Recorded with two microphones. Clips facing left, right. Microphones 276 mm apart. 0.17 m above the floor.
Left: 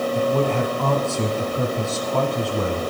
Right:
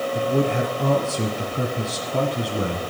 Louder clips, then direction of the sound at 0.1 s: Even; 15° right (ahead or behind).